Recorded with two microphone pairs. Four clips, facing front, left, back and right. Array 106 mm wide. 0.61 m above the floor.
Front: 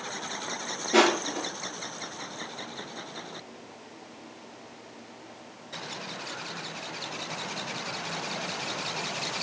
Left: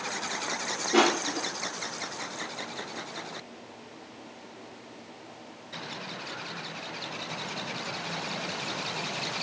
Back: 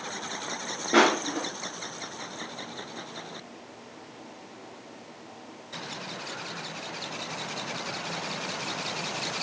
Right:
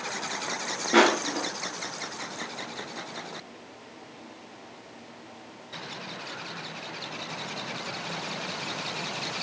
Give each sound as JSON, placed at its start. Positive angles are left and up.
{"t": 0.9, "sound": "crushing", "azimuth_deg": -140, "distance_m": 3.5}